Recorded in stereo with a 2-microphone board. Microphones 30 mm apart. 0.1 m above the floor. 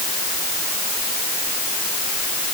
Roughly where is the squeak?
No squeak in this recording.